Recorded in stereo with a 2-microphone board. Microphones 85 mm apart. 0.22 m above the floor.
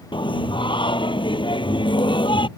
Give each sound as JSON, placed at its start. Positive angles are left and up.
{"t": 0.1, "sound": "singing", "side_deg": 70}